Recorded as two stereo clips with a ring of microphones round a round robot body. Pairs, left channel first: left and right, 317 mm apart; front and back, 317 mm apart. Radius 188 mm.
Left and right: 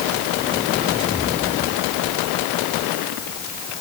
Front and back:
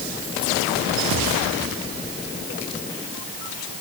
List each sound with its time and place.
Only background noise.